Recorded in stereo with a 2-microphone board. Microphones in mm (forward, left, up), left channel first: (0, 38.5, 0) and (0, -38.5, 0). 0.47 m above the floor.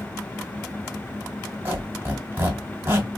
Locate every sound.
1.6 s a squeak: 25° right (ahead or behind), 1.9 m